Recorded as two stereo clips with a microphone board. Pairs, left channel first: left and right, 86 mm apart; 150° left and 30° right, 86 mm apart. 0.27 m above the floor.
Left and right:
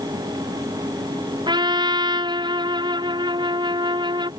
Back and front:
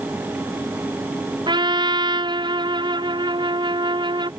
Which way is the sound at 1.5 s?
55° right.